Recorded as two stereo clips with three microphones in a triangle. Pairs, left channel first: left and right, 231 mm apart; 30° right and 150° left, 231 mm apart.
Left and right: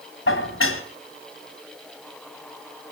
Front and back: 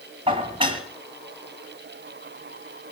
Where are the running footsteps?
No running footsteps in this recording.